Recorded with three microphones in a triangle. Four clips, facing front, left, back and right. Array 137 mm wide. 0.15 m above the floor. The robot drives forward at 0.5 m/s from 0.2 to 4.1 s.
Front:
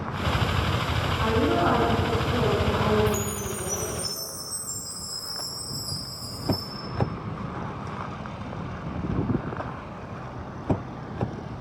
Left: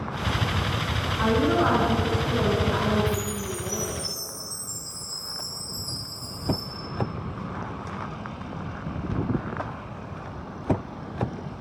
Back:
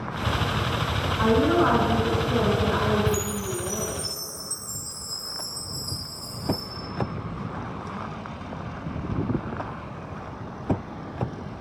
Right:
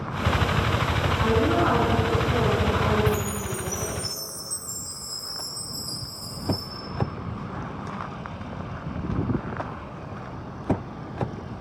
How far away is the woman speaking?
About 1.3 m.